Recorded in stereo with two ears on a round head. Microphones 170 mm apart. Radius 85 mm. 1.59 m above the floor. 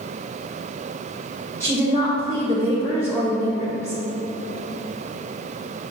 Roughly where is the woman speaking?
Centre.